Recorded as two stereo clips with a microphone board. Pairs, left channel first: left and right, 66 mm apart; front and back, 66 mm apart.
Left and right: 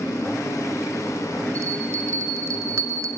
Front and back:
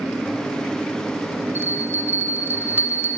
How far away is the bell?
About 1.8 m.